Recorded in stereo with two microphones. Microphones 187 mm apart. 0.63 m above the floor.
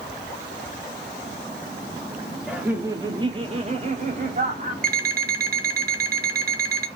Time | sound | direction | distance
2.5 | laughter | 5° right (ahead or behind) | 0.7 m
4.8 | an alarm clock | 50° right (ahead or behind) | 0.6 m